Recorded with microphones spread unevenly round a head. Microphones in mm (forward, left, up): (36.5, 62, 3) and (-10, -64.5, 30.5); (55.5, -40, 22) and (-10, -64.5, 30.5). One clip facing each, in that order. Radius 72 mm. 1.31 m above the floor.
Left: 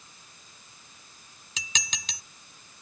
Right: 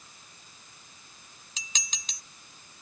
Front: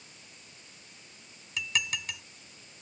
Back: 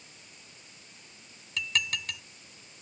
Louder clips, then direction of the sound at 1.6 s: Left 6 dB, back 1 dB; 110° left.